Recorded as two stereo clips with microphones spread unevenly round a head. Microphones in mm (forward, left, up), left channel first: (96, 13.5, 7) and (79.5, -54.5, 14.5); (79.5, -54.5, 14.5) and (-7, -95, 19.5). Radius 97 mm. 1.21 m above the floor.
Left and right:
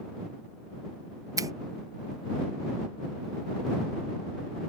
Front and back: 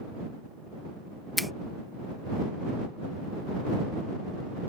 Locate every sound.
1.4 s a finger snap: 65° right